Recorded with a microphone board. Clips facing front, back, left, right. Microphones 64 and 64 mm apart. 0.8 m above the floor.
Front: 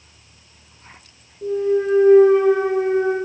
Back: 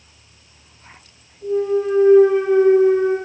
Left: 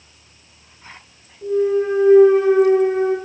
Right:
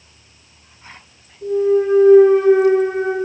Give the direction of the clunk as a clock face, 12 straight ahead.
12 o'clock.